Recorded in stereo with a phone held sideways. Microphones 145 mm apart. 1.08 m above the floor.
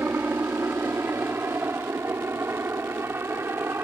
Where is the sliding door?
No sliding door in this recording.